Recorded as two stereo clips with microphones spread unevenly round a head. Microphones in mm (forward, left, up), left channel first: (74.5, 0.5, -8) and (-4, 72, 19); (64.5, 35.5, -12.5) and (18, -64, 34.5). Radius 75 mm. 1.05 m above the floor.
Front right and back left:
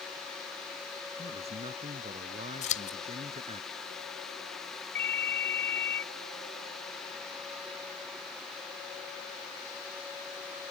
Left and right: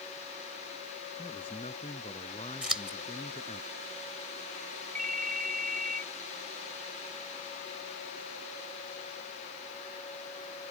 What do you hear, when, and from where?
1.2 s a man speaking: 120° left
2.6 s scissors: 35° right
5.0 s a ringtone: 125° right